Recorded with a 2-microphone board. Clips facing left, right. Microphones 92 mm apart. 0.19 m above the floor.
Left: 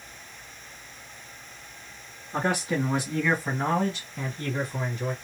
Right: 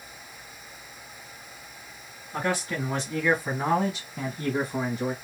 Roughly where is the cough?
I don't hear a cough.